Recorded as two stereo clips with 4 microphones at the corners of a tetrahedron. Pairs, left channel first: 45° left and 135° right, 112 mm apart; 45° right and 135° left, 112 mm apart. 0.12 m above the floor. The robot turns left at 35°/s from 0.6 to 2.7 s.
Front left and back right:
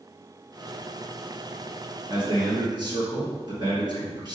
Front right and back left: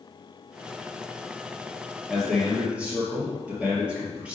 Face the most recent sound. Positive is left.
turn(degrees=-155)